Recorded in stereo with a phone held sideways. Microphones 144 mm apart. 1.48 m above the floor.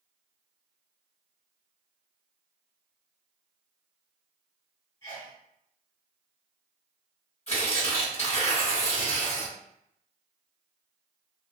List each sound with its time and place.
5.0 s a sneeze: 25° left (ahead or behind), 1.8 m
7.5 s tearing paper: 50° left (ahead or behind), 1.9 m